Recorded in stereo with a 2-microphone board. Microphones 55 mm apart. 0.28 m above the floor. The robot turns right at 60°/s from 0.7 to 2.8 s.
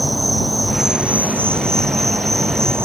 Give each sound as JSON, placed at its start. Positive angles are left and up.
{"t": 0.0, "sound": "an insect", "azimuth_deg": 180}